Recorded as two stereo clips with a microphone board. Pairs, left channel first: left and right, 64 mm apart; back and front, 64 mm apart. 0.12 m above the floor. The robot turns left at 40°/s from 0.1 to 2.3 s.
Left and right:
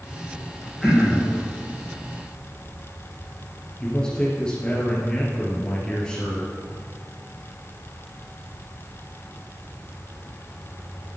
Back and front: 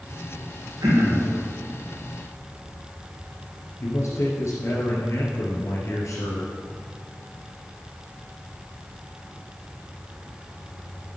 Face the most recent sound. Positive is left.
turn(degrees=165)